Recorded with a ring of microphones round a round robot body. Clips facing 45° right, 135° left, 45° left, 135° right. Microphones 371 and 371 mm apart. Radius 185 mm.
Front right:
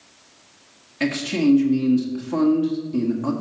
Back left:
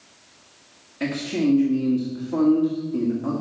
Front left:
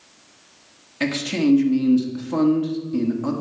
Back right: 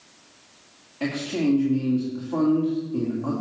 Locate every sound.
1.0 s a man speaking: 15° left, 1.9 m